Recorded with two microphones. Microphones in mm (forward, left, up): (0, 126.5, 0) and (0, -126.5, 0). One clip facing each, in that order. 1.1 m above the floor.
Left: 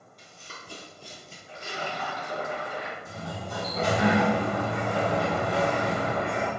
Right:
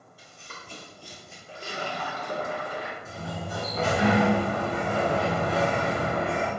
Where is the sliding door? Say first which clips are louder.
Right 1 dB; 5° right (ahead or behind), 1.3 m.